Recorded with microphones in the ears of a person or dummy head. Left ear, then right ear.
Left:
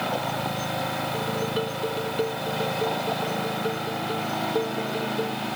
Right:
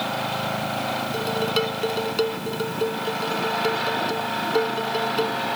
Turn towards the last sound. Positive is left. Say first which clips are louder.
# right 4 dB
turn(degrees=-45)  # may be behind; listen again after turning